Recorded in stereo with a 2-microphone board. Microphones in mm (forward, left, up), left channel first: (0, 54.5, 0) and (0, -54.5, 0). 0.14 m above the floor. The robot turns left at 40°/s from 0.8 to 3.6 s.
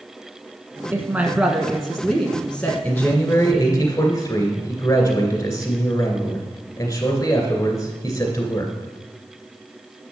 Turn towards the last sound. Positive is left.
turn(degrees=135)